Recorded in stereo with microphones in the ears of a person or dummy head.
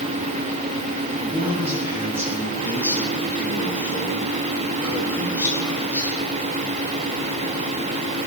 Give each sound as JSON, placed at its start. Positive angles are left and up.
{"t": 1.2, "sound": "a man speaking", "side_deg": -15, "distance_m": 9.5}